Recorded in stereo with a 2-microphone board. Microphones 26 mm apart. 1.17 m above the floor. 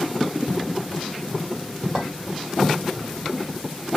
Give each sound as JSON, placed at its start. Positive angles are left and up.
{"t": 1.9, "sound": "a clink", "side_deg": -20, "distance_m": 1.9}